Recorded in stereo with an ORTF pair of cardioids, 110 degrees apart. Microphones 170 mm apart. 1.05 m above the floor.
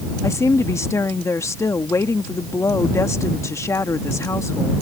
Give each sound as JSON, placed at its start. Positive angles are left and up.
{"t": 0.2, "sound": "a woman speaking", "azimuth_deg": 15}